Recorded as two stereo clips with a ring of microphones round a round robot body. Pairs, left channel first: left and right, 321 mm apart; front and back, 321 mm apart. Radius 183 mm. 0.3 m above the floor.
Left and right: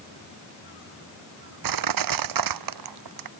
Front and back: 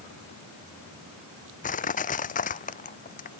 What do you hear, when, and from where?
1.6 s crushing: 70° right